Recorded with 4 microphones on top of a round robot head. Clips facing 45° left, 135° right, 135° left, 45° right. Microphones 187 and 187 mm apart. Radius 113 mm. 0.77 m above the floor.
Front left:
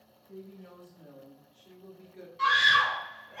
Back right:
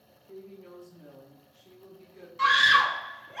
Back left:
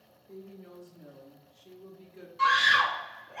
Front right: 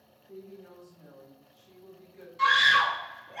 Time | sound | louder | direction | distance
0.3 | a woman speaking | back right 2 dB, even | 155° right | 1.9 m
2.4 | a scream | back right 3 dB, even | 125° right | 1.1 m